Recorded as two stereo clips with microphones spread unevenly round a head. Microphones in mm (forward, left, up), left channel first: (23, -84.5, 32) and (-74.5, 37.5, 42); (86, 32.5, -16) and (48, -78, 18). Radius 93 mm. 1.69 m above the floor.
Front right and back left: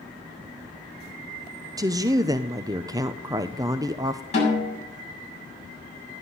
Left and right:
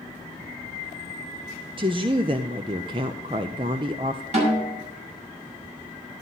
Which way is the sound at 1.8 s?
165° right.